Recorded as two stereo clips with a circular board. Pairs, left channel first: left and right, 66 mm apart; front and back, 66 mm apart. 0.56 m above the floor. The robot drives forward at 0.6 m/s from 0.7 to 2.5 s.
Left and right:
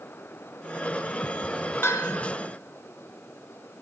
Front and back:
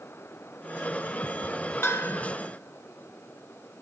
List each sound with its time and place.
1.8 s a bell: 45° left, 0.8 m; by 2.3 s 60° left, 0.6 m